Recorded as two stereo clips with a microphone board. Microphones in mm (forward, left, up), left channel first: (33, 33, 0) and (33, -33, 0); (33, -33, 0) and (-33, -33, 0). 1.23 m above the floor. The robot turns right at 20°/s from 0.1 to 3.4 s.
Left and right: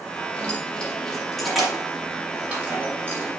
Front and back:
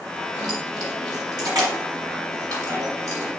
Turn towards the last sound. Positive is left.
turn(degrees=-140)